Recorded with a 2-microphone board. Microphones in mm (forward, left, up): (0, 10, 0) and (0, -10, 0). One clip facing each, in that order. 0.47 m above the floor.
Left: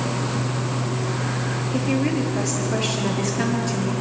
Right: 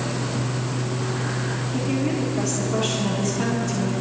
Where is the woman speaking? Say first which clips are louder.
Left 2 dB; 80° left, 8 m.